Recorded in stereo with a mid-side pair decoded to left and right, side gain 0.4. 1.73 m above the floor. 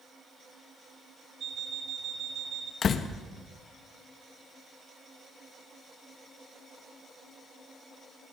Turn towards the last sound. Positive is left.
turn(degrees=60)